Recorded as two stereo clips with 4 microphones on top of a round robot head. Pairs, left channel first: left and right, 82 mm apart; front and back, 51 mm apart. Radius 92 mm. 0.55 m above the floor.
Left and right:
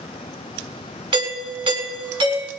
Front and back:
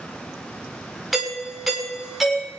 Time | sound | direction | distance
1.1 | a doorbell | 90° right | 6.5 m